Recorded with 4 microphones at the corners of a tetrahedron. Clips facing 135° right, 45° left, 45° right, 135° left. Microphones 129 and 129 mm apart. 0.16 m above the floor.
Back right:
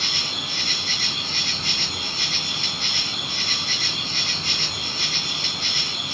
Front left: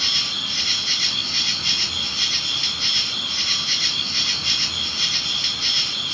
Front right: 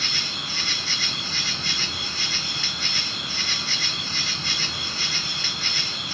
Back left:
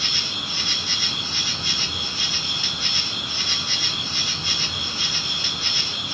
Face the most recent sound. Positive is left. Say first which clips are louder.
# back right 2 dB, back left 1 dB
turn(degrees=-155)